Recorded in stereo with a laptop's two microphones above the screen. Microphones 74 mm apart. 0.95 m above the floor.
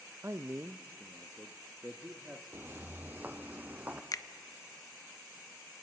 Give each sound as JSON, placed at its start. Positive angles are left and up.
{"t": 0.2, "sound": "a man speaking", "side_deg": -35, "distance_m": 0.5}
{"t": 2.5, "sound": "footsteps", "side_deg": -30, "distance_m": 1.0}
{"t": 4.1, "sound": "a finger snap", "side_deg": 50, "distance_m": 0.6}